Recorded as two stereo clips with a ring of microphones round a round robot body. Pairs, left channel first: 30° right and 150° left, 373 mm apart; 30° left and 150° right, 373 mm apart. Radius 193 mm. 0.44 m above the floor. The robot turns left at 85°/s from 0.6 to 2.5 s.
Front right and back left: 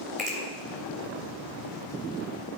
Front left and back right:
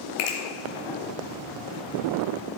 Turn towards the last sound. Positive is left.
turn(degrees=-100)